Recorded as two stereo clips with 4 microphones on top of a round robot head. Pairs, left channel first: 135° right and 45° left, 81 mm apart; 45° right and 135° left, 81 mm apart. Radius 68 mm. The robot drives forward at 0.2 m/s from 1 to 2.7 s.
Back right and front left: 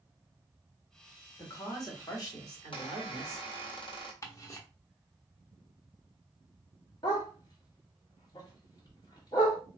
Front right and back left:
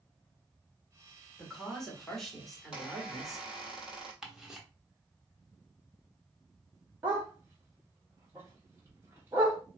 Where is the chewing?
I don't hear chewing.